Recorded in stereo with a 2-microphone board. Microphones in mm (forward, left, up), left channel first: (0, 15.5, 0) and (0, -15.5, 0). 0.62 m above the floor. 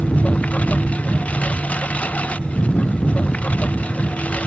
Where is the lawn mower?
45° left (ahead or behind).